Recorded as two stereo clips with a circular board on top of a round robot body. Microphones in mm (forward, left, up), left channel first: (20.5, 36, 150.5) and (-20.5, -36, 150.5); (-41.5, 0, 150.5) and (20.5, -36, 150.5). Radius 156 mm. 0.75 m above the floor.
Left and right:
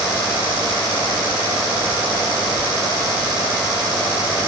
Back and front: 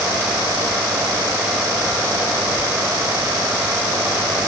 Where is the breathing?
No breathing in this recording.